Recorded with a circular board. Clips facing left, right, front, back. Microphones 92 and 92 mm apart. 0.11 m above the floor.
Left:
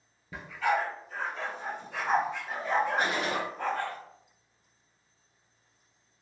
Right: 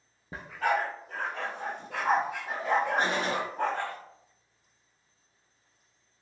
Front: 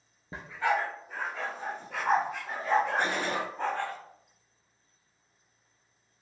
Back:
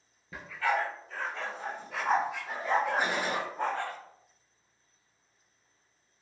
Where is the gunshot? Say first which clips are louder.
Right 1 dB, even; 110° right, 0.7 m.